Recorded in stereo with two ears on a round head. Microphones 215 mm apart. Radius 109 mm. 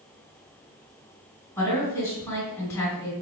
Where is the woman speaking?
10° left (ahead or behind), 1.8 m.